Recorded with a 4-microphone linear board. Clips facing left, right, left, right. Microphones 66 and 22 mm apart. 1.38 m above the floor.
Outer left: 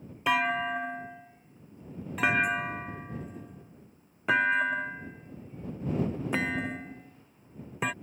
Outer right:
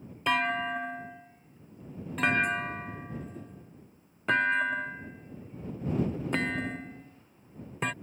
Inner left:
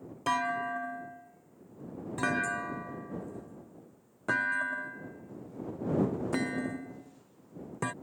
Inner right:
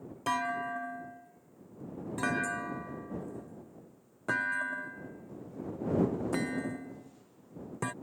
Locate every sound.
0.3 s a clunk: 5° left (ahead or behind)